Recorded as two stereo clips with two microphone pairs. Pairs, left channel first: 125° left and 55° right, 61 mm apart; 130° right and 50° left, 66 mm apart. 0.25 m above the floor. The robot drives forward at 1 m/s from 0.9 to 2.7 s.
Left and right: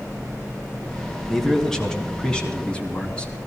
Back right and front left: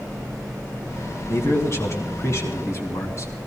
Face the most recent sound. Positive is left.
turn(degrees=-165)